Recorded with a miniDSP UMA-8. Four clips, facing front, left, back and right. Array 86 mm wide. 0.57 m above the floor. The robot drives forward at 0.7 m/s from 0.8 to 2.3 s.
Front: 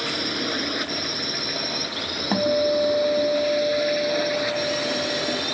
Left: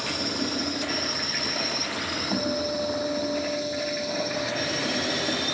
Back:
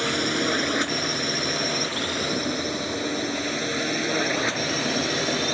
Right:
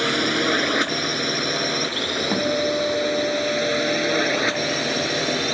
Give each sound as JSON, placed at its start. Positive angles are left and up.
{"t": 0.0, "sound": "a drone", "azimuth_deg": -105}
{"t": 2.3, "sound": "a guitar", "azimuth_deg": -20}